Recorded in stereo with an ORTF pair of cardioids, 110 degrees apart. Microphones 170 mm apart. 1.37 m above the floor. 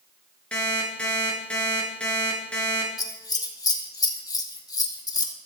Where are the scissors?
20° left, 2.5 m.